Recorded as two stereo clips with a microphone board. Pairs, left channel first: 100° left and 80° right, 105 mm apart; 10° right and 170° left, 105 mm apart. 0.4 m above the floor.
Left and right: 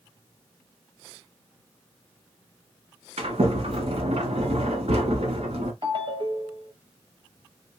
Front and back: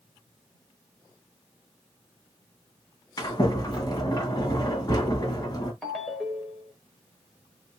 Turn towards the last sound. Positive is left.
turn(degrees=-100)